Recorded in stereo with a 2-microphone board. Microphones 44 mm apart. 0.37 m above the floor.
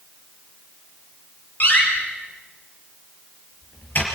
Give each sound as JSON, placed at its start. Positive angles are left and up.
{"t": 1.6, "sound": "a door slam", "side_deg": 45, "distance_m": 5.5}